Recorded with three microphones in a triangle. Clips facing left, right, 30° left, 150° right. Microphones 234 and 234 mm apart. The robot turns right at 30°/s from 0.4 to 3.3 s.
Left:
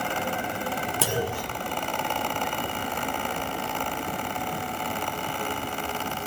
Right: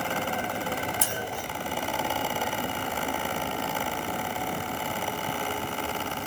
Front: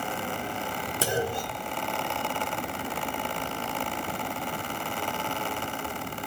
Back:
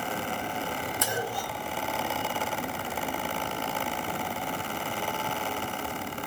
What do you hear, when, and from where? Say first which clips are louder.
1.0 s a clunk: left 6 dB, front 7 dB; 85° left, 1.6 m; by 1.7 s 105° left, 1.6 m